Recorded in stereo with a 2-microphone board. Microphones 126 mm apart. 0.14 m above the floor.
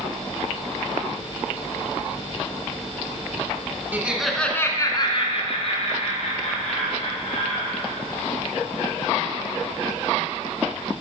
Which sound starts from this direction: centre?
Laughter, at 3.9 s.